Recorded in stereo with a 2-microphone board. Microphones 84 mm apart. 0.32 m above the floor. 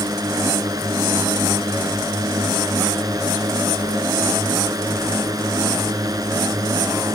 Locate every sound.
0.0 s a drone: 45° right (ahead or behind)